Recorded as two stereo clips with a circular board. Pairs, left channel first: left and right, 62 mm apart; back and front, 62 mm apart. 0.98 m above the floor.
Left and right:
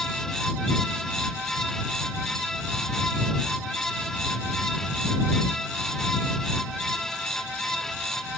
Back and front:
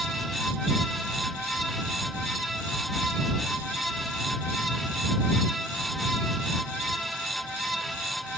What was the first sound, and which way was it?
Only background noise.